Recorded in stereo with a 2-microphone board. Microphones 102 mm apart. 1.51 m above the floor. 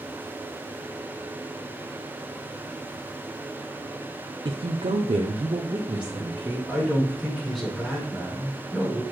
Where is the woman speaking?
55° right (ahead or behind), 0.7 m; by 6.6 s 40° right (ahead or behind), 1.6 m.